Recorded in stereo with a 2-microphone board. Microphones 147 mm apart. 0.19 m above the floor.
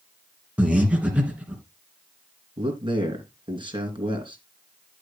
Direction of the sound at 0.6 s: 10° right (ahead or behind).